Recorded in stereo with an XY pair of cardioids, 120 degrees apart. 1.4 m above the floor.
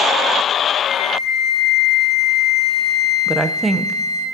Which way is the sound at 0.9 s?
50° left.